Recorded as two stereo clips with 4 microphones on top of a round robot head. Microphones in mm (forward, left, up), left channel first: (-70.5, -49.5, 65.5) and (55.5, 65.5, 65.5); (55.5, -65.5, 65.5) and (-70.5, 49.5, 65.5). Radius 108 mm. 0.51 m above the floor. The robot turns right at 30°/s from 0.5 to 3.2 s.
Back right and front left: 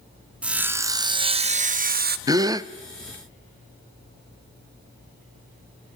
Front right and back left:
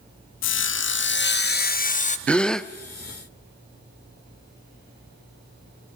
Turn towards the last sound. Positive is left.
turn(degrees=55)